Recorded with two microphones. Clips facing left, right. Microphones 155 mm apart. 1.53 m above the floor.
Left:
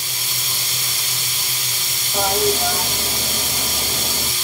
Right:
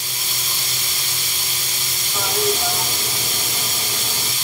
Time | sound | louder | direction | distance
2.1 | a toilet flushing | left 3 dB | 45° left (ahead or behind) | 1.0 m